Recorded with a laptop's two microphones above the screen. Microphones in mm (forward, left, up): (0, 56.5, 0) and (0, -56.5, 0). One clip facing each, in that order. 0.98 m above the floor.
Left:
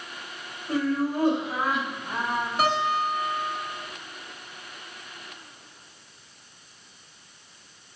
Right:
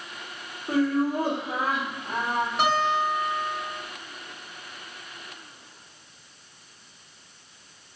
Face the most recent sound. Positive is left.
turn(degrees=0)  # may be behind; listen again after turning